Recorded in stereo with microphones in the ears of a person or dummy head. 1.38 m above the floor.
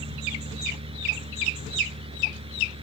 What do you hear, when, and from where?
0.0 s a fan: 30° right (ahead or behind)